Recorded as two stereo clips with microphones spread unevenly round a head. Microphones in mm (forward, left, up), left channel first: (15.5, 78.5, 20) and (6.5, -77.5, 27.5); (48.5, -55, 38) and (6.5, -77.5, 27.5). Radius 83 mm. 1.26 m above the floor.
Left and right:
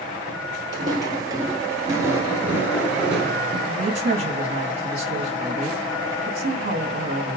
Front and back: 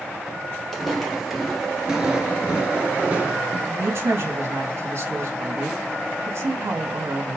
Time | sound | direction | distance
0.7 | footsteps | 40° right | 1.7 m
3.7 | a woman speaking | 140° right | 2.5 m